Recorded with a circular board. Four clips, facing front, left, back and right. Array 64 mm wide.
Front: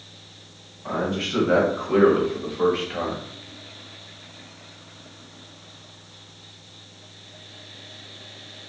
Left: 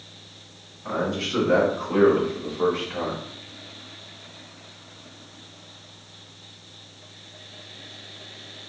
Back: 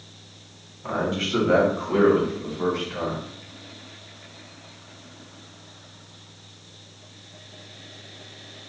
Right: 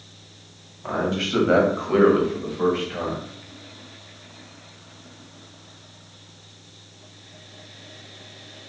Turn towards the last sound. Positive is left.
turn(degrees=-5)